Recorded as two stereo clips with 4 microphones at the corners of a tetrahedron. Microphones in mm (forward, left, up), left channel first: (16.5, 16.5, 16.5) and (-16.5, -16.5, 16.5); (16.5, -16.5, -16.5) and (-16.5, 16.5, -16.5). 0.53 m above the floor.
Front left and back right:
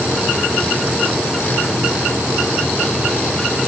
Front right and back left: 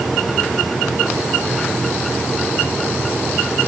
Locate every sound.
Only background noise.